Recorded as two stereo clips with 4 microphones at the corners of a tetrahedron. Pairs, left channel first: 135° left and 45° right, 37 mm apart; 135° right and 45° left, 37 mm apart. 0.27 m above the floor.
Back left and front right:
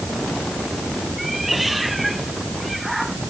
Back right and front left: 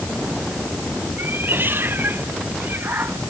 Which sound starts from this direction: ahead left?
A cat meowing, at 1.2 s.